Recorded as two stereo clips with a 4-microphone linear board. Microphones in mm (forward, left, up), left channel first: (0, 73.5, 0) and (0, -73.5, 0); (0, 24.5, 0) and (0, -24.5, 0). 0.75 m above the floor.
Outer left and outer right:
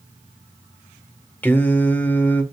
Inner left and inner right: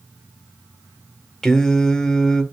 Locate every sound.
1.4 s singing: 10° left (ahead or behind), 1.6 m